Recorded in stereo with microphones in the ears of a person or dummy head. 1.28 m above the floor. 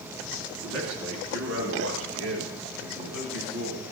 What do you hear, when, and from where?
0.6 s a man speaking: 75° right (ahead or behind), 2.5 m; by 3.8 s 80° right, 5.5 m